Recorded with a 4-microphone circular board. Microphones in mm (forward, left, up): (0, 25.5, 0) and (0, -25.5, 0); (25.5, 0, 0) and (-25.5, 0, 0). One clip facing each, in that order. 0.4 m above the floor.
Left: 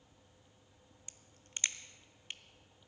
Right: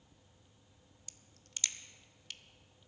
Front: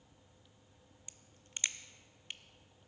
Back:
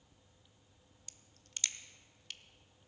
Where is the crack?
50° left, 0.7 m.